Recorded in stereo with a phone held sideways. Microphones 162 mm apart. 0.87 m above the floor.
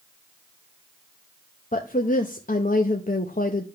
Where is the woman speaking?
55° left (ahead or behind), 0.8 m.